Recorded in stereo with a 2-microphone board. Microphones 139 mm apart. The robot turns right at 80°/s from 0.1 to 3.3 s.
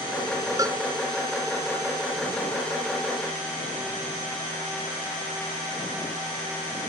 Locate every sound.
0.6 s a cowbell: 25° right (ahead or behind); by 0.8 s 30° right (ahead or behind)